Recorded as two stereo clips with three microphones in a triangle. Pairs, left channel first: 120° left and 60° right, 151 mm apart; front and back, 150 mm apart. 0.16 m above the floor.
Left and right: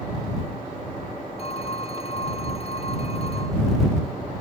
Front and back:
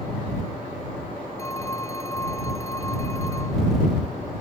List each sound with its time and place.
1.4 s a phone ringing: 70° left